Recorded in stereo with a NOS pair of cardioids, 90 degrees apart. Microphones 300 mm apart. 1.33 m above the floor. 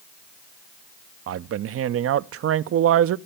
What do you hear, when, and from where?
1.3 s a man speaking: 50° right, 0.6 m